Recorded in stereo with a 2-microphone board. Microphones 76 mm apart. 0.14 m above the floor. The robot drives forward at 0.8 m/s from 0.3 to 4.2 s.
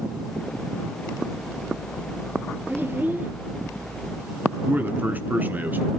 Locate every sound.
2.7 s a child speaking: 30° right (ahead or behind), 2.5 m; by 3.3 s 25° right (ahead or behind), 3 m
4.7 s a man speaking: 25° right (ahead or behind), 1.5 m